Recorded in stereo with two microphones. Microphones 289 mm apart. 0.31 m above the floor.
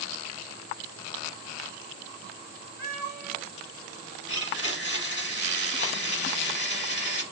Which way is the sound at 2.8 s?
70° right (ahead or behind).